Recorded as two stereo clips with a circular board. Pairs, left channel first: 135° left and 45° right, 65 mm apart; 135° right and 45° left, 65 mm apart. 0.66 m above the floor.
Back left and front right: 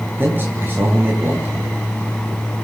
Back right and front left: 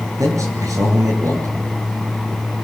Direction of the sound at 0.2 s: 10° left.